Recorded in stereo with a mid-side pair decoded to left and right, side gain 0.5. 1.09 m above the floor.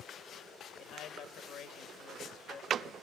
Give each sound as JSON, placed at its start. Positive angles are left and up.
{"t": 0.8, "sound": "a man speaking", "azimuth_deg": 65, "distance_m": 1.9}